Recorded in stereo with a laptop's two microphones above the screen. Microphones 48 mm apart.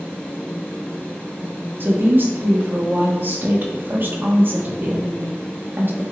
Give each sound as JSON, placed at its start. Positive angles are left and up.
{"t": 0.0, "sound": "a fan", "side_deg": 20, "distance_m": 1.2}
{"t": 1.8, "sound": "a woman speaking", "side_deg": -45, "distance_m": 0.9}